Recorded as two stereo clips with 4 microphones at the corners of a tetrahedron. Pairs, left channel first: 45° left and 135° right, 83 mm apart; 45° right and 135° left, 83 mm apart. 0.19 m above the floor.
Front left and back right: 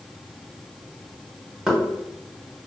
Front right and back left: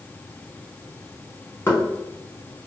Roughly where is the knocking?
Ahead right.